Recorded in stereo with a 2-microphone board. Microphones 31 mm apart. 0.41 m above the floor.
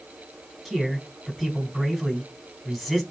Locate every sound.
0.7 s a man speaking: 5° right (ahead or behind), 4 m